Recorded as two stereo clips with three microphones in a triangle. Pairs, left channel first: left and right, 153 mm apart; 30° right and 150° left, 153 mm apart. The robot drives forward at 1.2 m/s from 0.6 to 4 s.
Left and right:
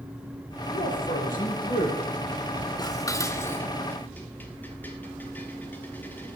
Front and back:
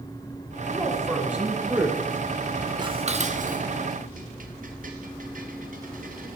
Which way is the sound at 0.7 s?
60° left.